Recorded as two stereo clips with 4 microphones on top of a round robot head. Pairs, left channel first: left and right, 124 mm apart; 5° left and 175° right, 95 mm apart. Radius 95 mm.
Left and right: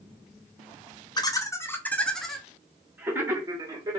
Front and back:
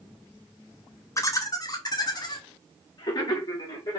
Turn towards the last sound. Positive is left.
turn(degrees=-35)